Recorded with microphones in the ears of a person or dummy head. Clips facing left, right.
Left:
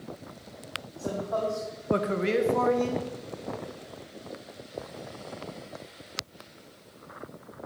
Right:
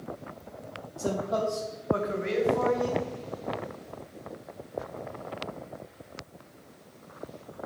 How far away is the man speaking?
About 1.4 m.